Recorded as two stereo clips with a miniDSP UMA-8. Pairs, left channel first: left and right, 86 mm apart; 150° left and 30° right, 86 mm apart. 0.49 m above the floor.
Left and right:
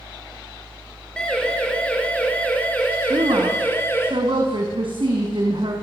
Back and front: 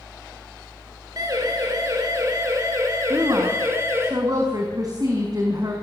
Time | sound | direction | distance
1.2 | a siren | 10° left | 6 m
3.1 | a woman speaking | 75° right | 4.5 m